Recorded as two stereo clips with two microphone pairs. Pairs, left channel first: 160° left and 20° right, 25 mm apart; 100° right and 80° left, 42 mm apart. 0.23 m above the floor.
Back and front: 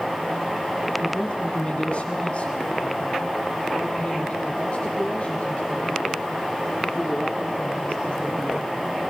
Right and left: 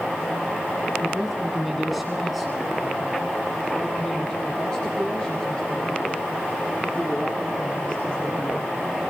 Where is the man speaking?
155° left, 2.5 m; by 8.8 s 160° right, 7.5 m.